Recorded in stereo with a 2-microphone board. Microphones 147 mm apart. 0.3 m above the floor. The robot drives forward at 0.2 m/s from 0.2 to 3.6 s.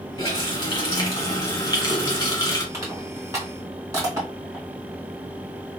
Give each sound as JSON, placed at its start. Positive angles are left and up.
{"t": 0.2, "sound": "a running tap", "side_deg": 30, "distance_m": 1.6}
{"t": 2.7, "sound": "crushing", "side_deg": -25, "distance_m": 1.7}